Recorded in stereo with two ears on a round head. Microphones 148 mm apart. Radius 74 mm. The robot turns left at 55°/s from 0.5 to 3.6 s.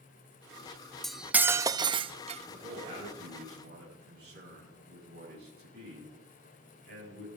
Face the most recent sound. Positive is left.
turn(degrees=-65)  # may be behind; listen again after turning